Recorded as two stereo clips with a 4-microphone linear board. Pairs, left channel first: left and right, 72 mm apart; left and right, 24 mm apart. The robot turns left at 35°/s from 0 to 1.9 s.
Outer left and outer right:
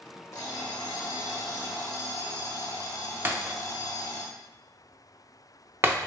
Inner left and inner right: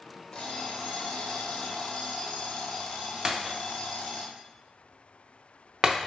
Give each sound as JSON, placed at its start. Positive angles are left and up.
{"t": 0.3, "sound": "an alarm clock", "azimuth_deg": 125, "distance_m": 0.8}
{"t": 3.2, "sound": "breaking glass", "side_deg": -35, "distance_m": 0.5}